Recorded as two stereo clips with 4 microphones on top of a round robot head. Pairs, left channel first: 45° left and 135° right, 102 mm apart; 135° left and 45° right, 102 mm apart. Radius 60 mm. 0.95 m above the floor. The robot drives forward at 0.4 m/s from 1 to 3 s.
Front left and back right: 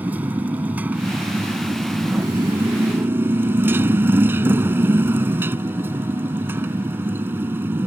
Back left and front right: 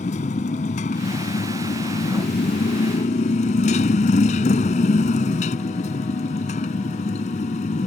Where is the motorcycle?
150° left; by 7.9 s 155° left.